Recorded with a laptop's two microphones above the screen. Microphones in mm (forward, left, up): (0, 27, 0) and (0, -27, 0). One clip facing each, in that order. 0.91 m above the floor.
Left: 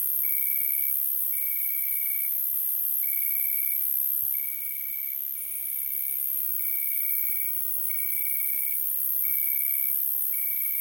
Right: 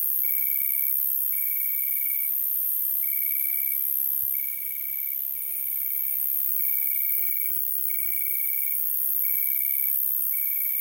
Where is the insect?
10° right (ahead or behind), 0.7 m.